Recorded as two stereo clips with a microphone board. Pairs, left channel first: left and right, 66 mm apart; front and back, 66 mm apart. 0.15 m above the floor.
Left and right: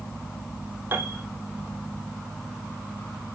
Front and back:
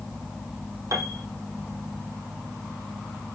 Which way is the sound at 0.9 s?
145° right.